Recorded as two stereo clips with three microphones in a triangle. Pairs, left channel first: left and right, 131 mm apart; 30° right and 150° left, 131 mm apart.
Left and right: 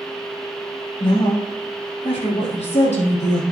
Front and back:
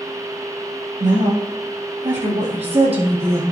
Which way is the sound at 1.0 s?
135° left.